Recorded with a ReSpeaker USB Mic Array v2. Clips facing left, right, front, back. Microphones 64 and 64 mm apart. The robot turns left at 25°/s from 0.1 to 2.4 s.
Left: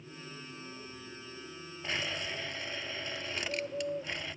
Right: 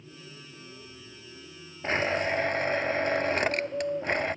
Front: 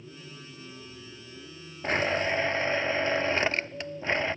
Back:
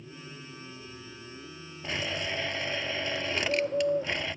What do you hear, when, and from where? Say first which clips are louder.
1.8 s a blender: right 10 dB, front 7 dB; 40° right; by 4.3 s 55° right
3.4 s a bird: right 8 dB, back 2 dB; 160° right